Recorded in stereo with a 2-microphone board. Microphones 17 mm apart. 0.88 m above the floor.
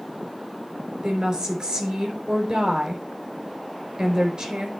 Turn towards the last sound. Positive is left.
turn(degrees=-65)  # may be behind; listen again after turning